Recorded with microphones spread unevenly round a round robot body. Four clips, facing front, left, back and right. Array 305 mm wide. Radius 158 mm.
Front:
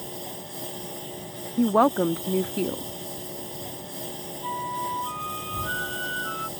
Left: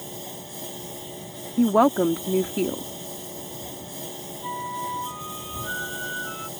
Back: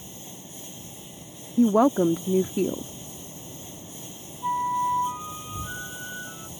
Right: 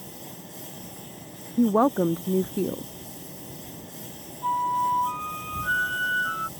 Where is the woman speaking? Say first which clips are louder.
Left 2 dB, back 1 dB; 155° left.